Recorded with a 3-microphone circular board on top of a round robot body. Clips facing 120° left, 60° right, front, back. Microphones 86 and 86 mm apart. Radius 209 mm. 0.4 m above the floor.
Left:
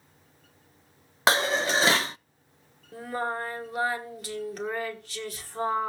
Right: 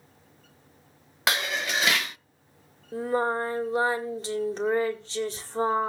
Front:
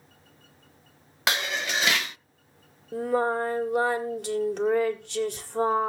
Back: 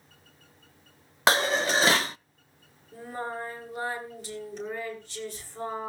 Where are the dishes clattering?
155° left, 0.6 m.